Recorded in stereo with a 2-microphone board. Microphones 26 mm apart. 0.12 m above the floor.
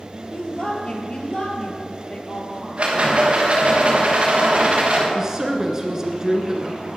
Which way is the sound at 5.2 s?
20° right (ahead or behind).